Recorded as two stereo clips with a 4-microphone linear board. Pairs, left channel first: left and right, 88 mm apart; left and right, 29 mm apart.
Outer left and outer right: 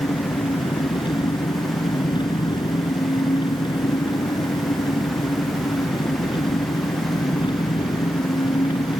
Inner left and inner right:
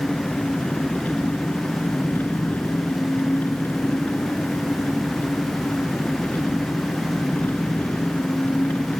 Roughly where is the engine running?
Left.